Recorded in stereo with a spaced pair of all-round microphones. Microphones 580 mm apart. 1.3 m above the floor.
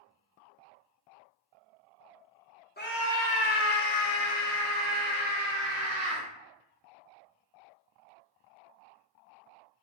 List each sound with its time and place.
2.8 s a scream: 15° left (ahead or behind), 0.8 m; by 6.2 s 45° left (ahead or behind), 1.9 m